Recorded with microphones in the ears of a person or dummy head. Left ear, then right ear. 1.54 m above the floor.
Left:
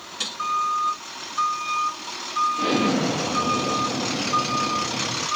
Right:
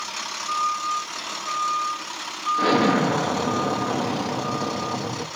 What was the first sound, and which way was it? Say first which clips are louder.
An explosion: right 3 dB; 55° right (ahead or behind).